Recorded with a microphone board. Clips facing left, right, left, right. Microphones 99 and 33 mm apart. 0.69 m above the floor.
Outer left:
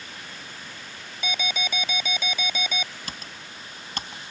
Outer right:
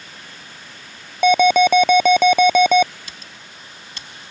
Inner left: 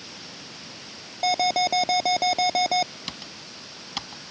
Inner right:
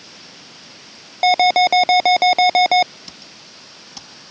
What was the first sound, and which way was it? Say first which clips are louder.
An alarm: outer right 19 dB, inner right 9 dB; 65° right (ahead or behind).